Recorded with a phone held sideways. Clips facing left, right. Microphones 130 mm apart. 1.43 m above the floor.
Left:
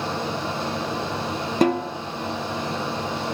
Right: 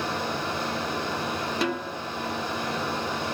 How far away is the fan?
About 9 m.